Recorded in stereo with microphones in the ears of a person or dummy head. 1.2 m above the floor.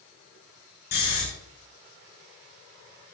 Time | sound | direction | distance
0.9 | snoring | 45° left (ahead or behind) | 7 m